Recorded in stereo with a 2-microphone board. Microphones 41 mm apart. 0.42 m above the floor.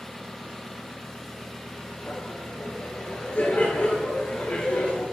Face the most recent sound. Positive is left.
turn(degrees=40)  # may be behind; listen again after turning